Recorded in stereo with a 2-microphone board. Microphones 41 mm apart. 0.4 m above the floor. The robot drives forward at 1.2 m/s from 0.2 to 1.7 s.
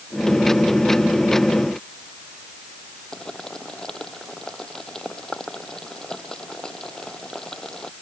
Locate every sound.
3.1 s boiling: 15° left (ahead or behind)